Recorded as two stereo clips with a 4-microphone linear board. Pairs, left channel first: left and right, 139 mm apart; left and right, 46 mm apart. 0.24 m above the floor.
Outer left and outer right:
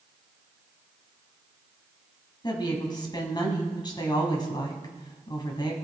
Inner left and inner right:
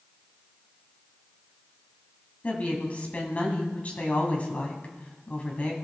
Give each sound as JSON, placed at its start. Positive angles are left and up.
{"t": 2.4, "sound": "a woman speaking", "side_deg": 30, "distance_m": 1.7}